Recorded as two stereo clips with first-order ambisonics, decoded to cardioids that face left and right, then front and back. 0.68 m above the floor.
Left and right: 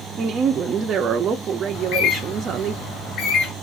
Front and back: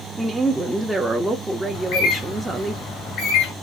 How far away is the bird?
About 2 m.